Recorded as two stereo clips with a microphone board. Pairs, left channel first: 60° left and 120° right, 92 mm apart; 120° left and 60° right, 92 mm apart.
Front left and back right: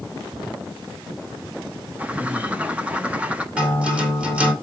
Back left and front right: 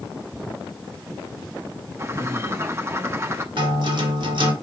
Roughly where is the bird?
Ahead right.